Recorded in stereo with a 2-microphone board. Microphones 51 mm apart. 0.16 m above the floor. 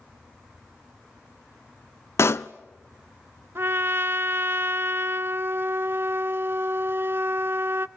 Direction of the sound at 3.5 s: 45° right (ahead or behind).